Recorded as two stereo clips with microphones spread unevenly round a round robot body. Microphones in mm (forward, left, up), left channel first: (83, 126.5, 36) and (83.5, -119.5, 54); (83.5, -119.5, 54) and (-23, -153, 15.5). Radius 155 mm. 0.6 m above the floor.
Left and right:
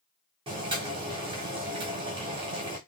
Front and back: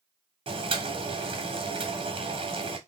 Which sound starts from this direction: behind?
Boiling, at 0.5 s.